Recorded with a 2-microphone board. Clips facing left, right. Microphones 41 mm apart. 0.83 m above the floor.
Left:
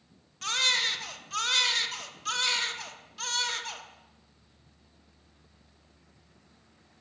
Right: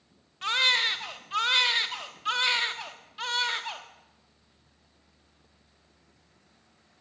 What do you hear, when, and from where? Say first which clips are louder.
0.4 s a baby crying: right 3 dB; 20° right (ahead or behind), 1.3 m